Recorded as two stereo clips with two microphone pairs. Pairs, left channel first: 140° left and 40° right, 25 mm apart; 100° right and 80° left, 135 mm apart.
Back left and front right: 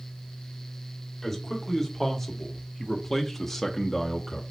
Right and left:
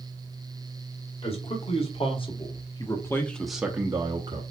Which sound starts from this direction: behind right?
A man speaking, at 1.2 s.